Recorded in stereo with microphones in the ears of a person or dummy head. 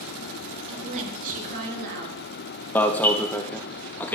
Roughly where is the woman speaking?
Right.